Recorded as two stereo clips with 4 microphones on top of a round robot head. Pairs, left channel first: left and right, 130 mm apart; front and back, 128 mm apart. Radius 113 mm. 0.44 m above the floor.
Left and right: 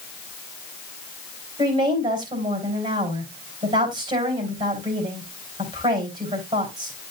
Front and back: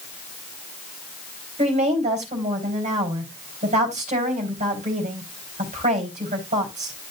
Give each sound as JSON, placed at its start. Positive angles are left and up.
{"t": 1.6, "sound": "a woman speaking", "azimuth_deg": -145, "distance_m": 4.0}